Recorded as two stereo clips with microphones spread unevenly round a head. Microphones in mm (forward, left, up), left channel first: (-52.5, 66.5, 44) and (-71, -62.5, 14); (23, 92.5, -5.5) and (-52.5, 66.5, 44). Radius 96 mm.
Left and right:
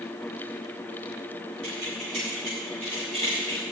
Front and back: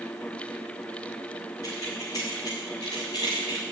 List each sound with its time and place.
1.6 s keys jangling: 45° right, 5 m; by 3.6 s 35° right, 4.5 m